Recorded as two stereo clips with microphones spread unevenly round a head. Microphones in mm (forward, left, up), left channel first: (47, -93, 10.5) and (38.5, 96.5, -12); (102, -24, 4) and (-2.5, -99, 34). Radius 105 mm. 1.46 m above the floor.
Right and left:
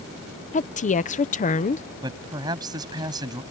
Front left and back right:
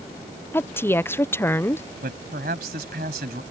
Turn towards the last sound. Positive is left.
turn(degrees=165)